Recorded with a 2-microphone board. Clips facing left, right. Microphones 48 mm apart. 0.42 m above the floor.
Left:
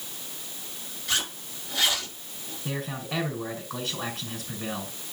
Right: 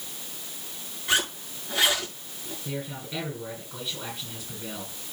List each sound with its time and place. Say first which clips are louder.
1.1 s a zipper: right 4 dB; 20° right (ahead or behind), 5.5 m
2.6 s a man speaking: left 3 dB; 75° left (ahead or behind), 5 m